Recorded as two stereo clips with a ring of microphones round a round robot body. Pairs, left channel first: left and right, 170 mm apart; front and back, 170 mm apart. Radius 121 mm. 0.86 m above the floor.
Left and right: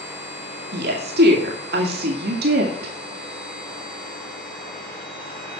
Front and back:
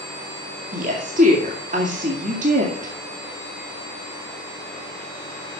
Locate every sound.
0.7 s a woman speaking: 125° right, 1.9 m